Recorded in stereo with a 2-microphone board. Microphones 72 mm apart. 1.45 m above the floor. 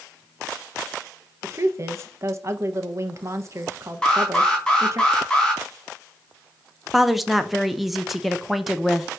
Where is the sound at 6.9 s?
Centre (ahead or behind), 0.8 m.